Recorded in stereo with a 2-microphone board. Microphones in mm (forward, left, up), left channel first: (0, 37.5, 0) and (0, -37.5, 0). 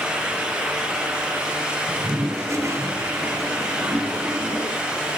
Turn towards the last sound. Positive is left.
turn(degrees=-40)  # may be behind; listen again after turning